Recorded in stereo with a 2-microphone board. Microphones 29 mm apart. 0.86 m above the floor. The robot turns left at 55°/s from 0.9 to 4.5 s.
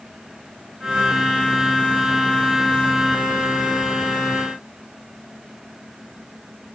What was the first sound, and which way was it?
Only background noise.